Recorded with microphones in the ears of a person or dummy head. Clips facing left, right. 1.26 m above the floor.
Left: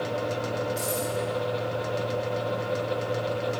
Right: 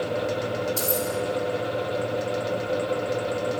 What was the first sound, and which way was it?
Keys jangling, 35° right (ahead or behind).